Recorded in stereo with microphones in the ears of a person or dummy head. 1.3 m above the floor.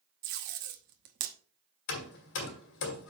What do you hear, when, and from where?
0.2 s tape being pulled: 55° right (ahead or behind), 1.0 m
1.9 s hammering: 70° left (ahead or behind), 2 m